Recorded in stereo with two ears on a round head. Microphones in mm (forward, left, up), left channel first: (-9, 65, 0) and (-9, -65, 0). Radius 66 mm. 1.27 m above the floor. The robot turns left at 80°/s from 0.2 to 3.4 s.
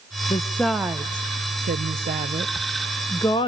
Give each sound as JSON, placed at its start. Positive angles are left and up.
{"t": 0.3, "sound": "a woman speaking", "side_deg": 30, "distance_m": 0.7}